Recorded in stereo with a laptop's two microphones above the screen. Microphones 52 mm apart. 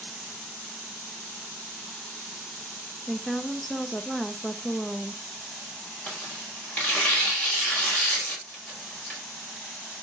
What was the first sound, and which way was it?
A woman speaking, 5° left (ahead or behind).